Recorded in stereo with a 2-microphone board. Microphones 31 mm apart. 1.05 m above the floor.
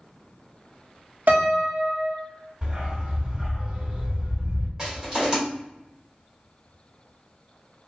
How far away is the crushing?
About 1.6 m.